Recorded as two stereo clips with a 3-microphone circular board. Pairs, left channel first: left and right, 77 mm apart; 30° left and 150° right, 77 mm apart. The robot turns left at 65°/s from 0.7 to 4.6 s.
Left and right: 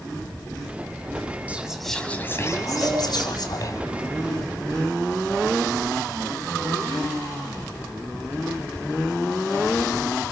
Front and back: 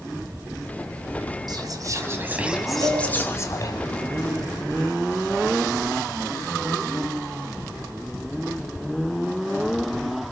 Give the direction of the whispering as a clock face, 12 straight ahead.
5 o'clock.